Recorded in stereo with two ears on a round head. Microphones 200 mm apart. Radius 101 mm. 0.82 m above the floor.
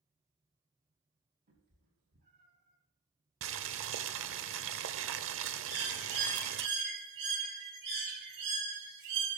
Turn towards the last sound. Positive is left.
turn(degrees=-50)  # may be behind; listen again after turning